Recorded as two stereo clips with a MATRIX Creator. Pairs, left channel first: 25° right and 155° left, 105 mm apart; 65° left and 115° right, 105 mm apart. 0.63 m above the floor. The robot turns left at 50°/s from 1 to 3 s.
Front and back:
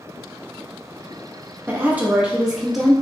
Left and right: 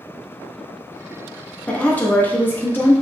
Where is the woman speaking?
125° left, 0.6 m; by 2.9 s 65° left, 0.6 m.